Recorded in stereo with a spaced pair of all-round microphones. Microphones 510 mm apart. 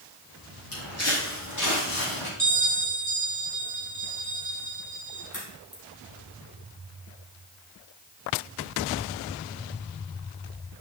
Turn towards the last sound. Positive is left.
turn(degrees=35)  # may be behind; listen again after turning